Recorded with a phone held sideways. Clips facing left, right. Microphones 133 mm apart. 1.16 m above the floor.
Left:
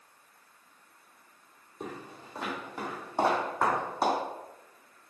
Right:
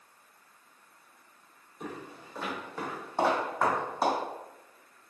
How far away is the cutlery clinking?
No cutlery clinking in this recording.